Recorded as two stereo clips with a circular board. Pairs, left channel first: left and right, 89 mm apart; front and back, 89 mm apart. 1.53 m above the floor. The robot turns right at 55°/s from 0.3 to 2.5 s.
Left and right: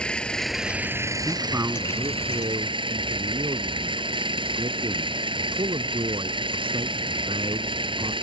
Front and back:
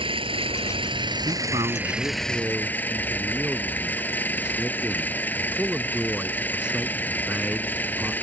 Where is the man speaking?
170° right; by 8.1 s 100° right.